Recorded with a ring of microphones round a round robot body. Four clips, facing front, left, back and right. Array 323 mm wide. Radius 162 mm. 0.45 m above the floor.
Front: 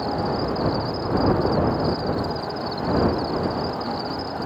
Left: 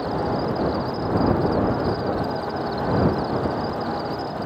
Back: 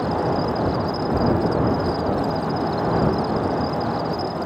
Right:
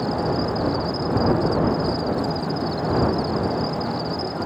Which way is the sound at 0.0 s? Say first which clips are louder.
Right 1 dB, back 3 dB; 135° right.